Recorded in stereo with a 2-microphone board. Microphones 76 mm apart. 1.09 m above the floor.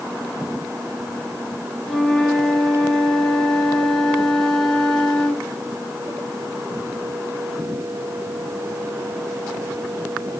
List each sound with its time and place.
1.9 s a flute: 5° left (ahead or behind), 0.8 m